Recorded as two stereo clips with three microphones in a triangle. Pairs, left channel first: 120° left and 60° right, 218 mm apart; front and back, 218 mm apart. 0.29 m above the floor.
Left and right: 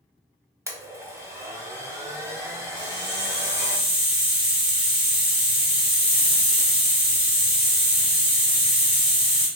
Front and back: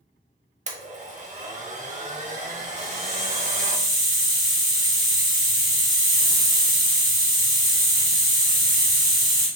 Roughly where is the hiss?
Right.